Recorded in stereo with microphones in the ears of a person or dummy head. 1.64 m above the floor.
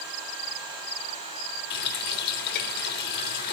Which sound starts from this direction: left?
A running tap, at 1.7 s.